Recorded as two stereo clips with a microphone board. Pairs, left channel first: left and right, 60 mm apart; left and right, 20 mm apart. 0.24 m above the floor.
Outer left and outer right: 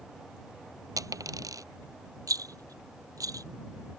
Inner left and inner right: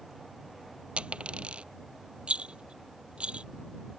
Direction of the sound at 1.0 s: 80° right.